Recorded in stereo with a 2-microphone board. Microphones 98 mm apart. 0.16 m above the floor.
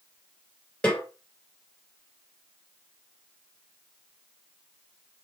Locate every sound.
0.8 s a snare drum: 10° left (ahead or behind), 2.5 m